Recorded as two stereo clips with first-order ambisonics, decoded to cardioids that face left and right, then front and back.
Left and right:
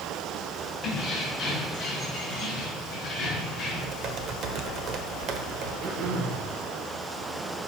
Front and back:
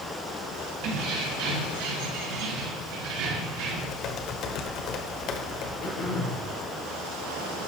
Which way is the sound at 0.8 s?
155° left.